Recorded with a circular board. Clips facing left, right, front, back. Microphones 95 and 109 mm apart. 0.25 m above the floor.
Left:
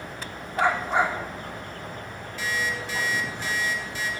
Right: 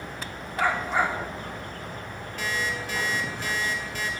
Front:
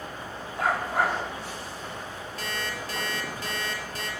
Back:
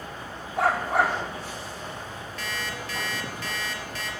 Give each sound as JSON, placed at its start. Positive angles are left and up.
{"t": 0.6, "sound": "a dog barking", "azimuth_deg": 155, "distance_m": 3.5}
{"t": 2.4, "sound": "an alarm clock", "azimuth_deg": -55, "distance_m": 2.5}